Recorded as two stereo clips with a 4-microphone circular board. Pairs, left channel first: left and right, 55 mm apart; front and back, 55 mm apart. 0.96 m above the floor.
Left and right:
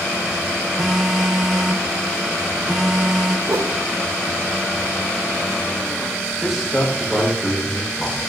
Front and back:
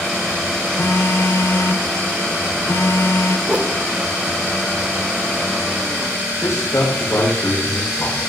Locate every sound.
0.8 s a phone buzzing: 10° right, 0.7 m
3.5 s a whoosh: 115° right, 0.5 m
6.4 s a man speaking: 5° right, 3.5 m